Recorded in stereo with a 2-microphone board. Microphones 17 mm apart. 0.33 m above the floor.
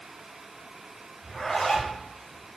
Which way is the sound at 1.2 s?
45° left (ahead or behind).